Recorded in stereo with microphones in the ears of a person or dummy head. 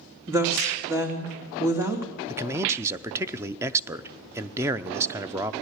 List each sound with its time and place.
0.3 s a woman speaking: 20° right (ahead or behind), 2.5 m
2.3 s a man speaking: 10° right (ahead or behind), 0.6 m